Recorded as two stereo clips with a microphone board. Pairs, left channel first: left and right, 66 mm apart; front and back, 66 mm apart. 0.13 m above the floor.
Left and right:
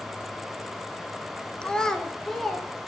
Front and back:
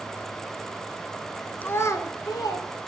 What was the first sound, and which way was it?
A child speaking, 30° left.